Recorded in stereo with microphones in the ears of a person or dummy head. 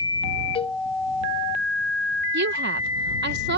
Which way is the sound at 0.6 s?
30° left (ahead or behind).